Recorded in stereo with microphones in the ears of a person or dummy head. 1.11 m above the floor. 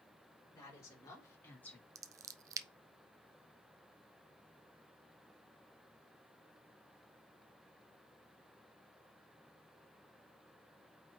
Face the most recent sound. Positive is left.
turn(degrees=-20)  # may be behind; listen again after turning